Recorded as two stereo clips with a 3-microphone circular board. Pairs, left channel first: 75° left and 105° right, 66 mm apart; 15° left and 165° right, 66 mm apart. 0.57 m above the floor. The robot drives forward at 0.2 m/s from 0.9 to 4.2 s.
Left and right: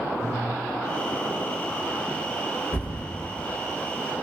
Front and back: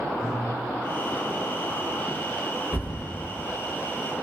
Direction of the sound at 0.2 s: 85° left.